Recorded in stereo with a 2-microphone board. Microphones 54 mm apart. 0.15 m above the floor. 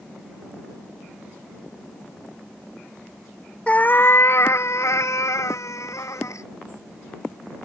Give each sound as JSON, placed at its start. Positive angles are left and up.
{"t": 3.7, "sound": "a cat meowing", "side_deg": 20}